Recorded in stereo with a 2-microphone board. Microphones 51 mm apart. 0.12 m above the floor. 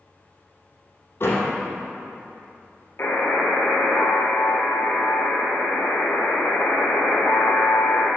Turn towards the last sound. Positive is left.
turn(degrees=50)  # may be behind; listen again after turning